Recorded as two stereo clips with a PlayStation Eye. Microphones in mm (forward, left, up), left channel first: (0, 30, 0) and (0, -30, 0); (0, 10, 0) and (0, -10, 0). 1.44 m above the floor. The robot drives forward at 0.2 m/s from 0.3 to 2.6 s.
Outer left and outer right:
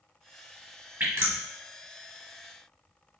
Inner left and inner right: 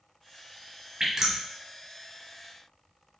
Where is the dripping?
40° right (ahead or behind), 1.1 m.